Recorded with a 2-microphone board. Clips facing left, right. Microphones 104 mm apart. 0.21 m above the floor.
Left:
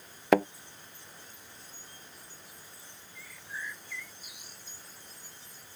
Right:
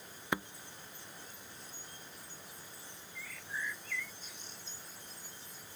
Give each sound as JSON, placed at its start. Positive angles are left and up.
{"t": 0.3, "sound": "a thud", "side_deg": 85}
{"t": 3.1, "sound": "a bird", "side_deg": 10}